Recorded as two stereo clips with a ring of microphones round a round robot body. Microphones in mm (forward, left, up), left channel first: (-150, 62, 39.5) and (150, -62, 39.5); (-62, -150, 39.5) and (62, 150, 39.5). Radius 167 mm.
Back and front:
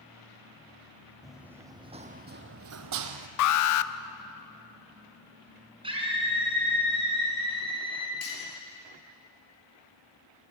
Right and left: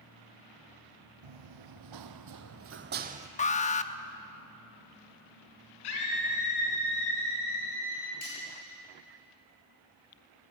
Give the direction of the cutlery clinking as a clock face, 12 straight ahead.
5 o'clock.